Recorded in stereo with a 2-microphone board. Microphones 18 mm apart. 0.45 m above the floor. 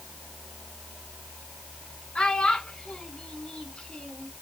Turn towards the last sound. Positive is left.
turn(degrees=70)  # may be behind; listen again after turning